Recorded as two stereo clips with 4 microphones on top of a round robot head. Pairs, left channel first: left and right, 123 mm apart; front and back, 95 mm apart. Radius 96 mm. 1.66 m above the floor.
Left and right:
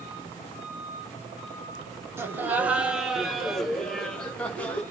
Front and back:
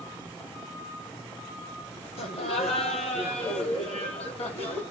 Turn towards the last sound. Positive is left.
turn(degrees=10)